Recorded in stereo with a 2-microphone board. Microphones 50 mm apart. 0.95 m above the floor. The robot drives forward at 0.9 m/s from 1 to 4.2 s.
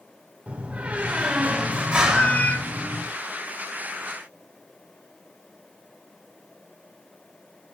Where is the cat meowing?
25° left (ahead or behind), 1.0 m.